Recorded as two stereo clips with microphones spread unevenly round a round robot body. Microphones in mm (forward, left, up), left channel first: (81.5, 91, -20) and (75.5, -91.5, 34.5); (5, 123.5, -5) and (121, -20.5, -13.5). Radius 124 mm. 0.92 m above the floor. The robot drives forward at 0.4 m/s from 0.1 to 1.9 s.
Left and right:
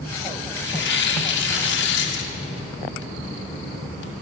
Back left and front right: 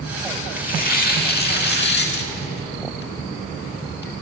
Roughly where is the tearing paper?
Left.